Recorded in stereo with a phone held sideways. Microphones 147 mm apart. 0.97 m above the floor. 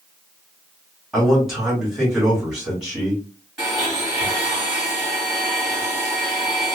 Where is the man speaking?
Centre (ahead or behind), 2.5 m.